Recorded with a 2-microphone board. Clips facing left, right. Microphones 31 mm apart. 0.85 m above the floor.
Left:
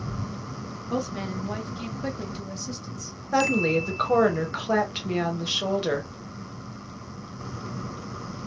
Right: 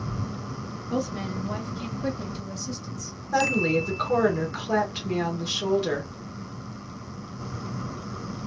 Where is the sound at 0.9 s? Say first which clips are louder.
Even; 25° left (ahead or behind), 0.6 m.